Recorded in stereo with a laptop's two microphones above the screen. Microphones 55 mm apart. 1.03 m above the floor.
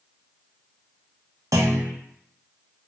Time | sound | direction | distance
1.5 | a clunk | 70° right (ahead or behind) | 0.6 m